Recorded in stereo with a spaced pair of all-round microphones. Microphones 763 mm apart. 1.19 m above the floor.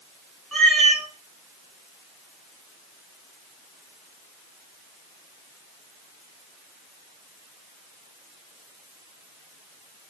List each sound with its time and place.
0.5 s a cat meowing: centre (ahead or behind), 1.6 m